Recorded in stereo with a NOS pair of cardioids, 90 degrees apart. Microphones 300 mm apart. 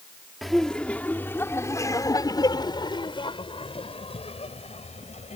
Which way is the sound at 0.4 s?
Straight ahead.